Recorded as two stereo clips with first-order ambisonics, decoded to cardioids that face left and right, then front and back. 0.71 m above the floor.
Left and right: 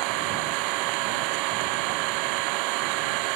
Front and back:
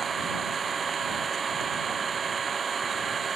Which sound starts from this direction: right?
An engine running, at 0.0 s.